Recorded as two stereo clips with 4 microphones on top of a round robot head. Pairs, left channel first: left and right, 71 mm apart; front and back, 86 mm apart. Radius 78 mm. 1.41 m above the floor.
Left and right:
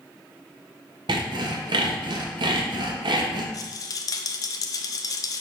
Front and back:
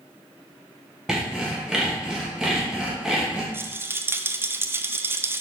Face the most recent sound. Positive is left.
turn(degrees=120)